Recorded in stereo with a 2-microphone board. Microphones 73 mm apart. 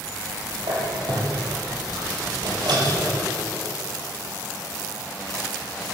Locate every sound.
0.6 s a squeak: 80° right, 9.5 m